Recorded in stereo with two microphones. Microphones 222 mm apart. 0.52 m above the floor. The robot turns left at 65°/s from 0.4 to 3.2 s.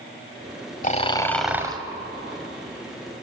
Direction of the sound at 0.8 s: 40° left.